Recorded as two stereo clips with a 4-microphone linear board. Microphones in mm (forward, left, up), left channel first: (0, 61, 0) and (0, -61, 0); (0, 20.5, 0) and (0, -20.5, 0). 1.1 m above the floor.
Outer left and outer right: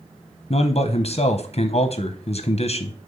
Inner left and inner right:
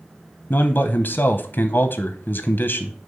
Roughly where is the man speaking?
Left.